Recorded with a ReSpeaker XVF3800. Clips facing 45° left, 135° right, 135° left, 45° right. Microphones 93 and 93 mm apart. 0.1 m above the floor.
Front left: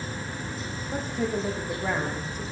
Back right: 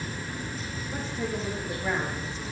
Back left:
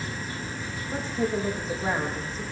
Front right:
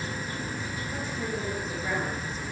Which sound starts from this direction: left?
A woman speaking, at 0.9 s.